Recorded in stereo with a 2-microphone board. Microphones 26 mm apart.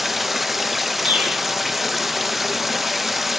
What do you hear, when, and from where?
0.0 s running water: 5° right (ahead or behind), 1.2 m
1.1 s a bird: 70° right (ahead or behind), 7.5 m